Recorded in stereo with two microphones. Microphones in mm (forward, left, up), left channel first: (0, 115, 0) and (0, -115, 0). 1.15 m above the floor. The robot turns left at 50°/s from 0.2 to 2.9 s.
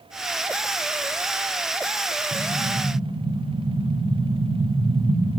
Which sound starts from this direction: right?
An explosion, at 2.3 s.